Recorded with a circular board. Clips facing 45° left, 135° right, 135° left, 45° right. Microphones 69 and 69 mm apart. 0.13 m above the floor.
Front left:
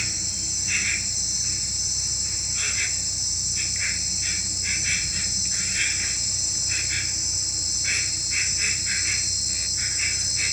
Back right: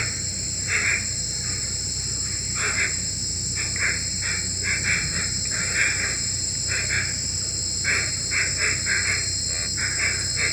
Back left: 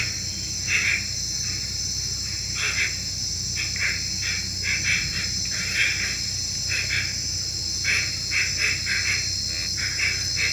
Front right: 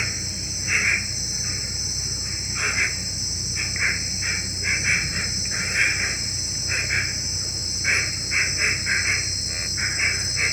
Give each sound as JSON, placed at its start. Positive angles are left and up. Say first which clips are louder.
{"t": 0.0, "sound": "an insect", "louder": "back right 4 dB, front right 3 dB", "azimuth_deg": -105}